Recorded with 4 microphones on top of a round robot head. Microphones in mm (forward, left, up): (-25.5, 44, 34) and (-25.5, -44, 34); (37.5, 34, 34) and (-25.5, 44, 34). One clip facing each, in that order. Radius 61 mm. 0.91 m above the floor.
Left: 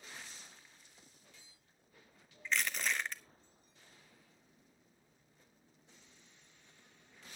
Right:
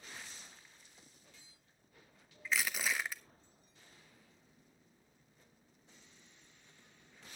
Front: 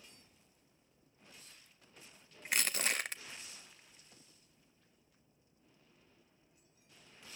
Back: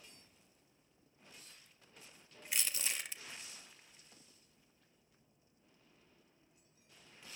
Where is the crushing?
5° right, 0.9 m.